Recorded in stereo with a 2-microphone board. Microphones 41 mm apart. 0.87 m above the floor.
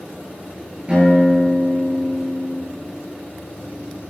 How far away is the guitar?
About 9.5 m.